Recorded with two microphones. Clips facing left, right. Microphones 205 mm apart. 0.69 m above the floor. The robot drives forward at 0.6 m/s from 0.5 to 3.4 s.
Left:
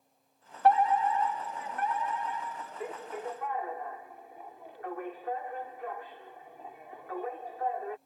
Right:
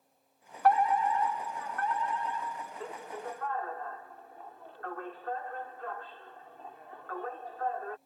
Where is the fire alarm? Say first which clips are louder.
Left 1 dB; 25° left (ahead or behind); by 8.0 s 15° left (ahead or behind).